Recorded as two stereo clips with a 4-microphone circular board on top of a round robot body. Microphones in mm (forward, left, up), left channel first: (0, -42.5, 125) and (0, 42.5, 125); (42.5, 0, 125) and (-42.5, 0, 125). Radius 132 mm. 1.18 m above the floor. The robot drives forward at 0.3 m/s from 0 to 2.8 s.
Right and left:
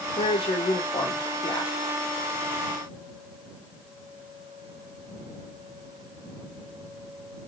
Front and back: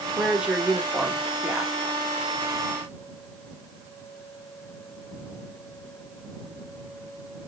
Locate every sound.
0.2 s a woman speaking: 95° right, 1.9 m; by 1.7 s 110° right, 2 m